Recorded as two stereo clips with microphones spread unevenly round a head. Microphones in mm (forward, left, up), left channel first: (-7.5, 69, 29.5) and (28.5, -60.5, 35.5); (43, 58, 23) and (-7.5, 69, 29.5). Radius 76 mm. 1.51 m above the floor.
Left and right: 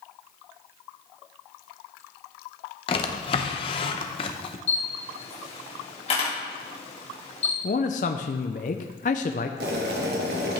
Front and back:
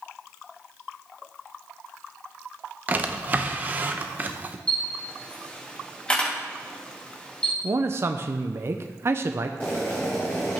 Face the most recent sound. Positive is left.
turn(degrees=-90)